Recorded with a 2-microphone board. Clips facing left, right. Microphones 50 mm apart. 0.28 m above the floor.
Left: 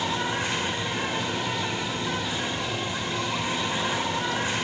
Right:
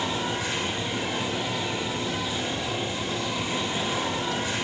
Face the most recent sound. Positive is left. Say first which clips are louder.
# left 1 dB
turn(degrees=50)  # may be behind; listen again after turning